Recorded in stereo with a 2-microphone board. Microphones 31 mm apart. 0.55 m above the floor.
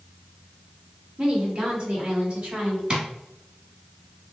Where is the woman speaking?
30° right (ahead or behind), 1.8 m; by 2.8 s 40° right (ahead or behind), 2.5 m.